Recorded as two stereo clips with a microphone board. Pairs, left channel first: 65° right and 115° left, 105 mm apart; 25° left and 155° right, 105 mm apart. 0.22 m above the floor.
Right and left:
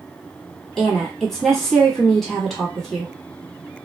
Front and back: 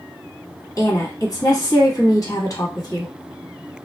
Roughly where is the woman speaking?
Ahead.